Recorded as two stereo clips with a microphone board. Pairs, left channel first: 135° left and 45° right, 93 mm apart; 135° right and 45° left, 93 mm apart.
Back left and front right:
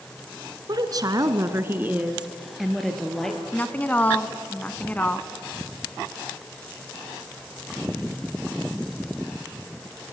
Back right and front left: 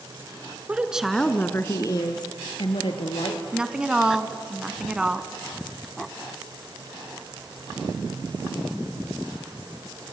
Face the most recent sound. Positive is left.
turn(degrees=105)